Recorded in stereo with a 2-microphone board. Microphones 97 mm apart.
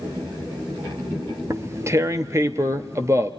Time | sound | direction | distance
1.5 | tearing paper | 30° right (ahead or behind) | 0.8 m